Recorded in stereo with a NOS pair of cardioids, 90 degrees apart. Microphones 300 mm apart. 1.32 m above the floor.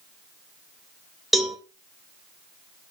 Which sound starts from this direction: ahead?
A cowbell, at 1.3 s.